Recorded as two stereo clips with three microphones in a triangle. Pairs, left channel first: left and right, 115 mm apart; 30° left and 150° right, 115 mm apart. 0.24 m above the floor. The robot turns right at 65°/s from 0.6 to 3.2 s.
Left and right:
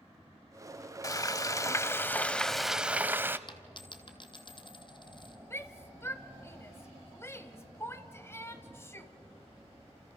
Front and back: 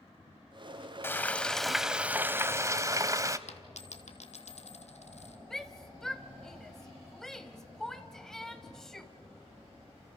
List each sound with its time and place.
1.0 s frying: 80° left, 0.7 m; by 3.4 s 140° right, 0.7 m
3.5 s a dropped coin: 45° left, 1.5 m
5.5 s a shout: 110° left, 1.1 m